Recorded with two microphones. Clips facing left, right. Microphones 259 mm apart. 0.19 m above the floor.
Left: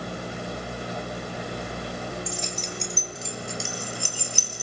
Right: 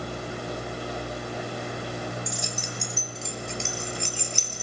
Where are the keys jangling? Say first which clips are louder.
Left 1 dB; 15° right (ahead or behind), 1.6 m; by 4.6 s 10° left (ahead or behind), 3 m.